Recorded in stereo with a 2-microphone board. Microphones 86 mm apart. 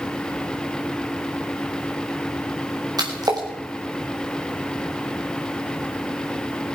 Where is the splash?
50° right (ahead or behind), 5 m.